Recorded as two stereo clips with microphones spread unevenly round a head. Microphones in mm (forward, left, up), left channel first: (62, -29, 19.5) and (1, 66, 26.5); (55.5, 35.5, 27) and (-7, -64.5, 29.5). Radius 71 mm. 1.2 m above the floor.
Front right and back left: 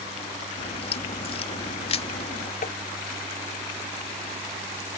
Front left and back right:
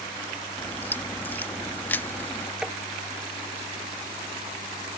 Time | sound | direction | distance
0.6 | a crack | 15° right | ?
2.6 | tapping | 35° right | ?